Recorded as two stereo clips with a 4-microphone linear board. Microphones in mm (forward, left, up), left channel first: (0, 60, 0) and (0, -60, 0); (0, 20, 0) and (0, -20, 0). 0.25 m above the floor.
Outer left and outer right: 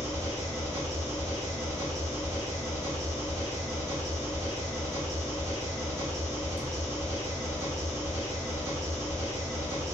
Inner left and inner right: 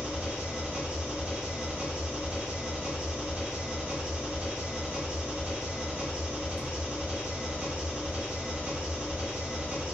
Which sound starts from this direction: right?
An engine running, at 0.0 s.